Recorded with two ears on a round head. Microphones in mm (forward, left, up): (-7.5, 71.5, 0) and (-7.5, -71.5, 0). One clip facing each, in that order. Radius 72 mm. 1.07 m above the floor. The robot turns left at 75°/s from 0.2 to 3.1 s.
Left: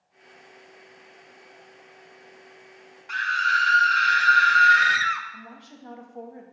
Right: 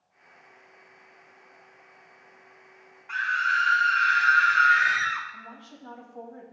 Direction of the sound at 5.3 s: 15° left (ahead or behind).